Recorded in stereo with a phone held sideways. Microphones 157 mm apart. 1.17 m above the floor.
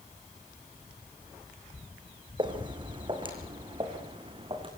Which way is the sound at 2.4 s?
30° right (ahead or behind).